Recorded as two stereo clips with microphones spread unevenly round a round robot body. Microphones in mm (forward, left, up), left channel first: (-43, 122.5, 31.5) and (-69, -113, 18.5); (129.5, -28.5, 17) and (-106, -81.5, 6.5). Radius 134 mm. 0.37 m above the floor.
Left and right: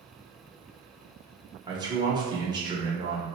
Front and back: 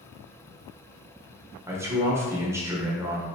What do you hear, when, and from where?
1.7 s a man speaking: 115° right, 1.0 m